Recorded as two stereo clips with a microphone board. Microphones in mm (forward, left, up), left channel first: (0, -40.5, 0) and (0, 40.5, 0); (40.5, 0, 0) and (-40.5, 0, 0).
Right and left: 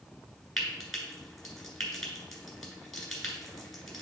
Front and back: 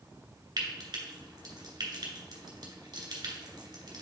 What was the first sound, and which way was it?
Frying, 175° right.